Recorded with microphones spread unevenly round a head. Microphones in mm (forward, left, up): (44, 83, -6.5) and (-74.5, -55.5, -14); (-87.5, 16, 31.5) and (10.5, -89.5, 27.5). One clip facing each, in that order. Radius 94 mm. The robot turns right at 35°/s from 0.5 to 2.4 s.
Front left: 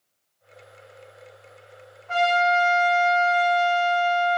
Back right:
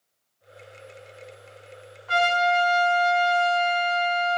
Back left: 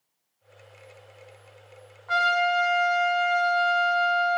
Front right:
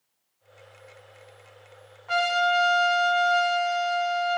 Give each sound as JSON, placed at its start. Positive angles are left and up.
{"t": 2.1, "sound": "a trumpet", "azimuth_deg": -115, "distance_m": 1.5}